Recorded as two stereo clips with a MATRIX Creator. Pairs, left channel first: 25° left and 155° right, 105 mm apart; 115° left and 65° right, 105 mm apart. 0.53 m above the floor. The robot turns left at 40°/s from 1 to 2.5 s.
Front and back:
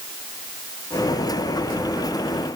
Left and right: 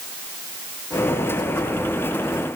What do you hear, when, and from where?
Only background noise.